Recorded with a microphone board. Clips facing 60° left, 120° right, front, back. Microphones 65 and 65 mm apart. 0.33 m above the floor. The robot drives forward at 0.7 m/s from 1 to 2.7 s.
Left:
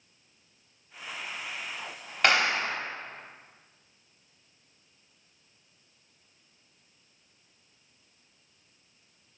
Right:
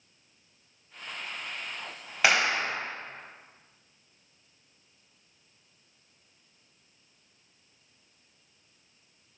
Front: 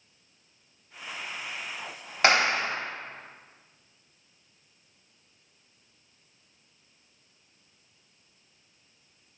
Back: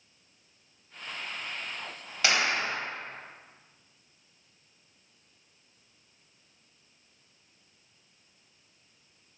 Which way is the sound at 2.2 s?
35° right.